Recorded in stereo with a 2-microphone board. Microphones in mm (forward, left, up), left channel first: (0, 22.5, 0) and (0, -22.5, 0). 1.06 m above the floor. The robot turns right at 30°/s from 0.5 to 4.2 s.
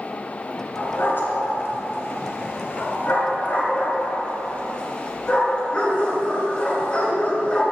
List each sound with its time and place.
0.8 s a dog barking: 50° left (ahead or behind), 2 m; by 7.6 s 25° left (ahead or behind), 2 m